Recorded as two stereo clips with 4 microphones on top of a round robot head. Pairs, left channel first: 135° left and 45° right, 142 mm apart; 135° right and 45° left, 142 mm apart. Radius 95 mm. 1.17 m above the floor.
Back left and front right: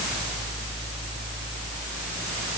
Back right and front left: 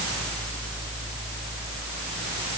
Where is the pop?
I don't hear a pop.